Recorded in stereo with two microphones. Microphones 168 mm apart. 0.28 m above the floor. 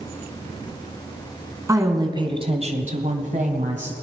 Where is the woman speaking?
20° right (ahead or behind), 2.5 m; by 3.9 s 45° right (ahead or behind), 2 m.